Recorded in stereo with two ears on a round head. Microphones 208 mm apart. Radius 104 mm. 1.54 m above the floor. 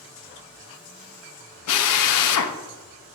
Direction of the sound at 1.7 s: 80° left.